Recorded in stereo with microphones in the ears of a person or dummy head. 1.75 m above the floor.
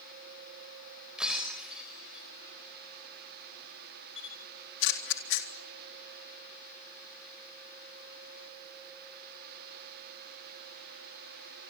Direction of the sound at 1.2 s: 5° right (ahead or behind).